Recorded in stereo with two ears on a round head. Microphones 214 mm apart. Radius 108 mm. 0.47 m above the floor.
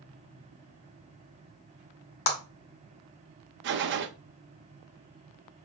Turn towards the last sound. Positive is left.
turn(degrees=-50)  # may be behind; listen again after turning